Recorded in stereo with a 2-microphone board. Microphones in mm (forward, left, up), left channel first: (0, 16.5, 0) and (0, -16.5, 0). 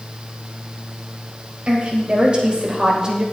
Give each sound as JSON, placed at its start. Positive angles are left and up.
{"t": 1.7, "sound": "a woman speaking", "side_deg": -35, "distance_m": 3.5}